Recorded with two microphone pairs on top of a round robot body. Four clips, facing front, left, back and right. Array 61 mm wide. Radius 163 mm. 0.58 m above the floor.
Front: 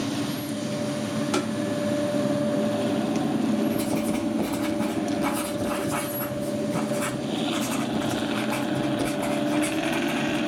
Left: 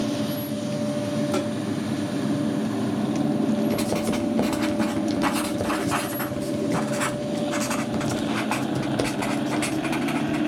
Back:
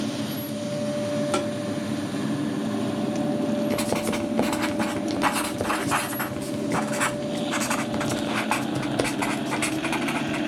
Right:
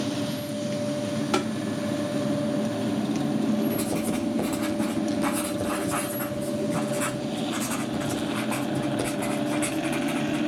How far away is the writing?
About 2 m.